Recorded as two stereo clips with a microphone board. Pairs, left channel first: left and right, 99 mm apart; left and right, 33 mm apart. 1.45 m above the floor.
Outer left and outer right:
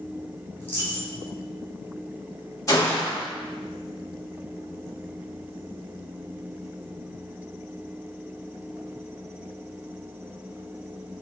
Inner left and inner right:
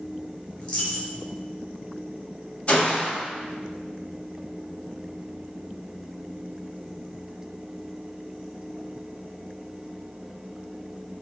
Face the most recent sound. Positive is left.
turn(degrees=35)  # may be behind; listen again after turning